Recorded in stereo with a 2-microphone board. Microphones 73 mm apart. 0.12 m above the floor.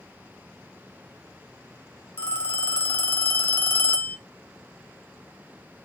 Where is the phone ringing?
25° left (ahead or behind), 0.8 m.